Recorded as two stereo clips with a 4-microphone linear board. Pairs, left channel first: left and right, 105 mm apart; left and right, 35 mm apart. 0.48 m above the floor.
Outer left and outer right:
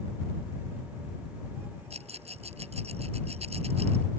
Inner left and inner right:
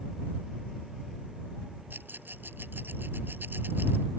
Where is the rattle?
85° right.